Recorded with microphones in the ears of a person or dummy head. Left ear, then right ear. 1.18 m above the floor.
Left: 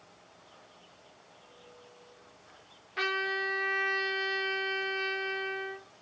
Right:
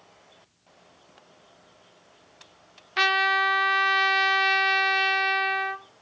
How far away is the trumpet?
About 0.5 m.